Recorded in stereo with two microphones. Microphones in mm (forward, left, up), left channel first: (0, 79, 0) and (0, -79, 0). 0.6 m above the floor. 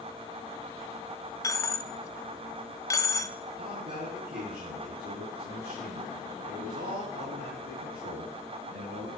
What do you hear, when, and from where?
1.4 s a dropped coin: 20° left (ahead or behind), 0.6 m
3.6 s a man speaking: 80° right, 6.5 m